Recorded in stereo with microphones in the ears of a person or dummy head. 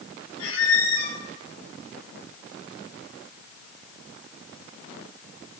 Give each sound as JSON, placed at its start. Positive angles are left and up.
{"t": 0.4, "sound": "a squeak", "side_deg": 40, "distance_m": 3.0}